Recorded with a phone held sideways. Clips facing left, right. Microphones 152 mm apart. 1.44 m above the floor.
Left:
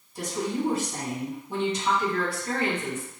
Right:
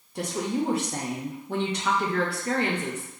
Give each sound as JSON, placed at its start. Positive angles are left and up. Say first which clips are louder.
{"t": 0.1, "sound": "a woman speaking", "louder": "right 1 dB", "side_deg": -60, "distance_m": 0.8}